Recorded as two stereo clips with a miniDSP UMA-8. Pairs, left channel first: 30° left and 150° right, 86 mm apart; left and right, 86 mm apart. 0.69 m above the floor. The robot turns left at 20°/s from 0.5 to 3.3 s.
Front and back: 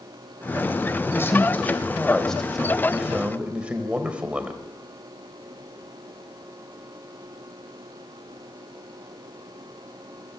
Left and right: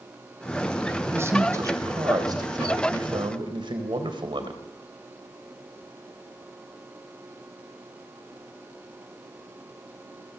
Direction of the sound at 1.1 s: 30° right.